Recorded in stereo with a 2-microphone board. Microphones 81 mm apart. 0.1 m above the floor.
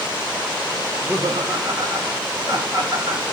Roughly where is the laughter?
Right.